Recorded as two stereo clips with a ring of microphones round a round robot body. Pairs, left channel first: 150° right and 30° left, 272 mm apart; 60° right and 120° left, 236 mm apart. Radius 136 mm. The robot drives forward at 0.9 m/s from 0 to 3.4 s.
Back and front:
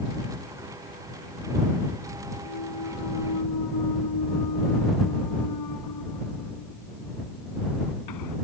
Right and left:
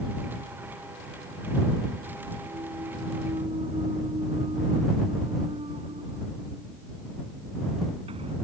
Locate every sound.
2.5 s a clunk: 165° right; by 8.3 s 170° right